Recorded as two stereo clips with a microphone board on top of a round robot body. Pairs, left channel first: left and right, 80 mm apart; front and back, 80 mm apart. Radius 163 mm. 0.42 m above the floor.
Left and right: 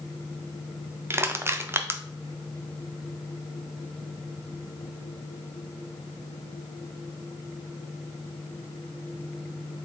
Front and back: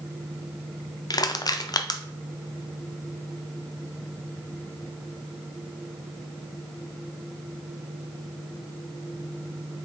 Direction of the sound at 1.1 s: 35° right.